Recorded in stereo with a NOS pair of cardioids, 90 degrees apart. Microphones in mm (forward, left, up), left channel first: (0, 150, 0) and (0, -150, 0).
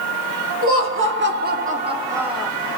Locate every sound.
0.6 s laughter: 50° right, 1.3 m; by 2.5 s 5° left, 0.8 m